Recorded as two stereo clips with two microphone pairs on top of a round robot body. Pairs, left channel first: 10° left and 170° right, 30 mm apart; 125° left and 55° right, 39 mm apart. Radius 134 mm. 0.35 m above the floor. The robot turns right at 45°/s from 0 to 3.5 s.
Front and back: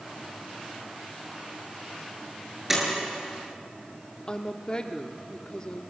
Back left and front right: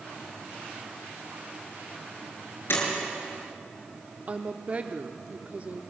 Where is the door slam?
115° left, 7 m; by 2.8 s 120° left, 7 m.